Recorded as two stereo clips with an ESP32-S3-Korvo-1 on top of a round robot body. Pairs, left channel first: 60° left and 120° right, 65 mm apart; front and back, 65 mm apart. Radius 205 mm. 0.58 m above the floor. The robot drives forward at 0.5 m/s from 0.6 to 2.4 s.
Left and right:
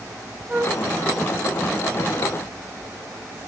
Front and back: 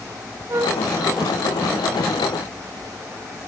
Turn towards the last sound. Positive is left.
turn(degrees=180)